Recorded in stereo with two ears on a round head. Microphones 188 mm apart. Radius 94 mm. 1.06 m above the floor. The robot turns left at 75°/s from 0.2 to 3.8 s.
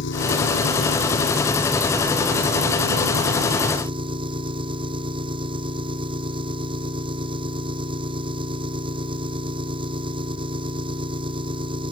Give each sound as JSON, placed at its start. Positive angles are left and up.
{"t": 0.0, "sound": "an engine running", "azimuth_deg": 115}